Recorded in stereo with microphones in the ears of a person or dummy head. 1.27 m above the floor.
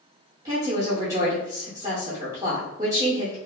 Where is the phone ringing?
I don't hear a phone ringing.